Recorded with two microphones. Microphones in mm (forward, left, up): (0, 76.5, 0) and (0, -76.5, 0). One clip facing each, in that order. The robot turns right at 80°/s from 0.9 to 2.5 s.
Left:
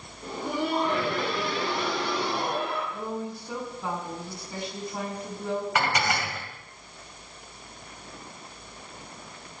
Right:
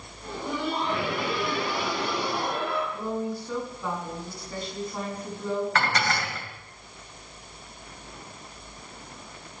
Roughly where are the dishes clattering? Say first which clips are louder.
Even; centre.